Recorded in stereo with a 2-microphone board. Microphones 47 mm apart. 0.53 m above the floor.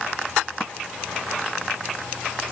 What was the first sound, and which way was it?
Only background noise.